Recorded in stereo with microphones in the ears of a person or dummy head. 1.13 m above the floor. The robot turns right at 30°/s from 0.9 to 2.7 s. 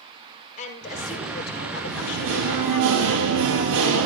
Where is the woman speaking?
45° left, 5.5 m; by 2.9 s 100° left, 5.5 m.